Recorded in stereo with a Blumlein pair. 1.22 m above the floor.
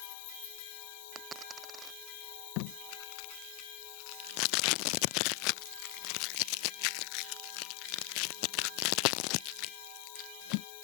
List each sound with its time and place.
0.0 s an insect: 50° left
1.1 s a dropped coin: 20° right
2.6 s tape being pulled: 45° left